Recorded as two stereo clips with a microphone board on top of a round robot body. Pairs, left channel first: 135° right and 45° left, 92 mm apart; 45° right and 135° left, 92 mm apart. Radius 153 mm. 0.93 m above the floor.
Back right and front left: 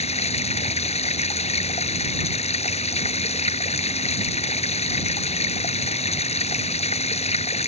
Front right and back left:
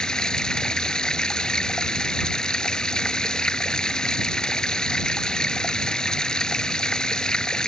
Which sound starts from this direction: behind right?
Running water, at 0.0 s.